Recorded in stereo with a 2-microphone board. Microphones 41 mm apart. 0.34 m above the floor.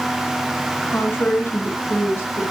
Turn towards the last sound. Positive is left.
turn(degrees=75)  # may be behind; listen again after turning